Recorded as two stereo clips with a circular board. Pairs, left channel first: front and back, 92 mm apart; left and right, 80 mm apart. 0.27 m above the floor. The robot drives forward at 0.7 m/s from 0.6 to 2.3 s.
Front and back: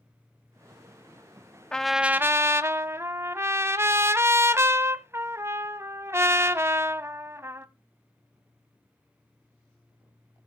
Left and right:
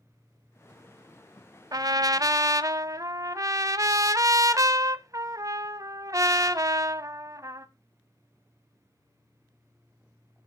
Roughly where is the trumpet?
Right.